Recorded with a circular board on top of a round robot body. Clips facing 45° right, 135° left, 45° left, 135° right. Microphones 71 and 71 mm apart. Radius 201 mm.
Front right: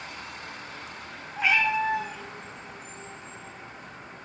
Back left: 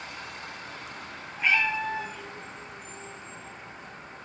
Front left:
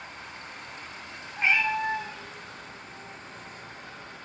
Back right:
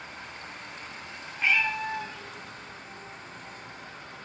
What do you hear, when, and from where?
1.4 s a cat meowing: 25° right, 0.8 m; by 4.2 s 15° right, 2.5 m